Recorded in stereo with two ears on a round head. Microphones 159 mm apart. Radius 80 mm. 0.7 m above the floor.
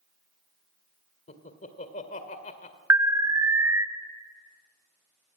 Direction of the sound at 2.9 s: 15° right (ahead or behind).